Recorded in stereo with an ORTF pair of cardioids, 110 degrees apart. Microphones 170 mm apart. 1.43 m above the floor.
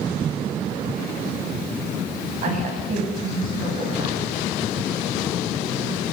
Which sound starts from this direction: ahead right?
A woman speaking, at 2.4 s.